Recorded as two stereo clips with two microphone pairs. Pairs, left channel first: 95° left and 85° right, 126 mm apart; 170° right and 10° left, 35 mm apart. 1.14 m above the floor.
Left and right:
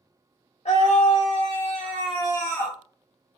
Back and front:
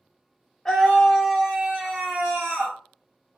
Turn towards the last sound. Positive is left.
turn(degrees=15)